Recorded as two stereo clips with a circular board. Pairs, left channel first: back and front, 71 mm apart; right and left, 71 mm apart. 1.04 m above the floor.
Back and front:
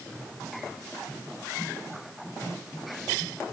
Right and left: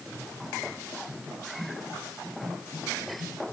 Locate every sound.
Only background noise.